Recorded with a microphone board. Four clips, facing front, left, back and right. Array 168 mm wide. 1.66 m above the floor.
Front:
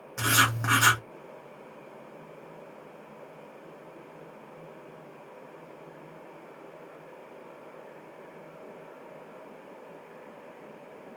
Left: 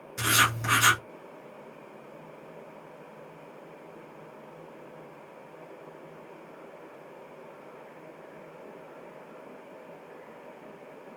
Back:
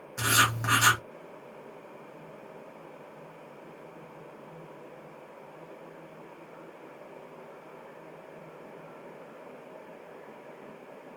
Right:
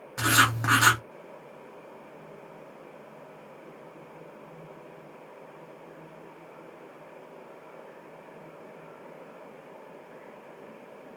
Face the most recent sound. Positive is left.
turn(degrees=-70)